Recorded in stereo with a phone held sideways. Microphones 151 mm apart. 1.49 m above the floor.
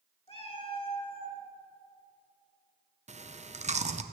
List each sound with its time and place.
0.3 s a cat meowing: 40° left (ahead or behind), 2 m
3.1 s chewing: 50° right (ahead or behind), 0.7 m